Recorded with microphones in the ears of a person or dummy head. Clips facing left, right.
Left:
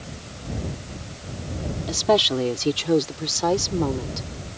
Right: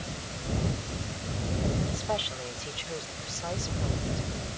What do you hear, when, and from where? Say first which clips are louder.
1.9 s a woman speaking: left 12 dB; 75° left (ahead or behind); by 4.3 s 80° left